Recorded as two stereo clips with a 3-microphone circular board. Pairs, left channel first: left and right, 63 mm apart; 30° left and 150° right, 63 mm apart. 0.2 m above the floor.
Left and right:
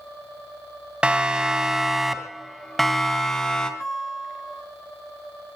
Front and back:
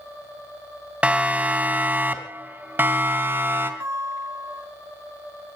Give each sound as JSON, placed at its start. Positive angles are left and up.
{"t": 1.0, "sound": "a siren", "azimuth_deg": -125, "distance_m": 2.0}
{"t": 3.8, "sound": "a guitar", "azimuth_deg": 170, "distance_m": 7.5}